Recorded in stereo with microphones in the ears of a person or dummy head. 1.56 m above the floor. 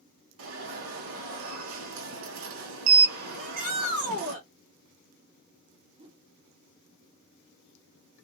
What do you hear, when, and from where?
0.4 s an alarm: 70° right (ahead or behind), 1.5 m
3.4 s a shout: 55° right (ahead or behind), 3 m
6.0 s a whoosh: 25° right (ahead or behind), 0.8 m